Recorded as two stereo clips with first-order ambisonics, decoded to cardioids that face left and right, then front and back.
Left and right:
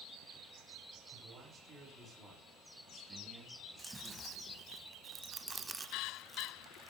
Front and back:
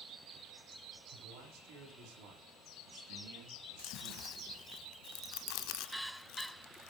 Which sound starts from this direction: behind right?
A man speaking, at 1.1 s.